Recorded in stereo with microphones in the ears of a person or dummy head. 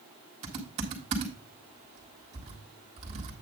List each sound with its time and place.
0.4 s typing on a keyboard: 40° right (ahead or behind), 1.7 m